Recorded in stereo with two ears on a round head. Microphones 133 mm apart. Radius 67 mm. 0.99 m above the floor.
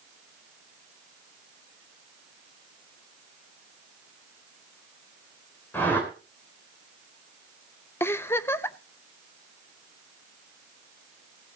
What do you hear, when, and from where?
5.7 s a whoosh: 15° left (ahead or behind), 3 m
8.0 s a giggle: 15° left (ahead or behind), 0.6 m